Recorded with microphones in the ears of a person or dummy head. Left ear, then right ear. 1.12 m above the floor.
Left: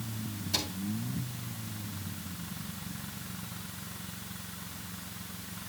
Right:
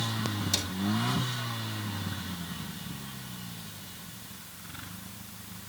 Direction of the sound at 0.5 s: 25° right (ahead or behind).